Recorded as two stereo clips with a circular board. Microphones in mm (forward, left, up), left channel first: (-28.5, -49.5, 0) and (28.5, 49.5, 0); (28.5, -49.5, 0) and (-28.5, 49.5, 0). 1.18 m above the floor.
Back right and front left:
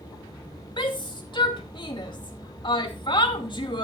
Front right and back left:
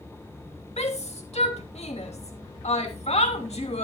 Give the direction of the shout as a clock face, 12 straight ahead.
2 o'clock.